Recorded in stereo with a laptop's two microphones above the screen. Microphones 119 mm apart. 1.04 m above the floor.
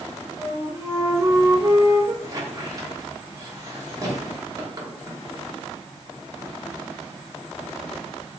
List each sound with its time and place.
0.4 s a flute: 30° right (ahead or behind), 0.6 m
2.2 s a squeak: 30° right (ahead or behind), 0.9 m